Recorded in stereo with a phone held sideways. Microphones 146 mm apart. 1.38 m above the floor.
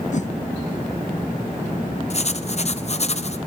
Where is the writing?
50° left (ahead or behind), 0.8 m.